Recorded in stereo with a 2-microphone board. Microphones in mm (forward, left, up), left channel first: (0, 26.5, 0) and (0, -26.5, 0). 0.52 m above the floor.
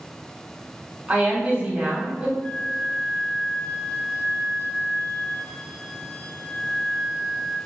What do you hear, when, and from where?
1.1 s a woman speaking: 30° right (ahead or behind), 1.0 m
2.4 s a flute: 15° left (ahead or behind), 1.3 m